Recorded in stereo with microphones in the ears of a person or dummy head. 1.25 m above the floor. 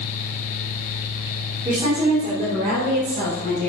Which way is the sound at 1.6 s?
15° right (ahead or behind).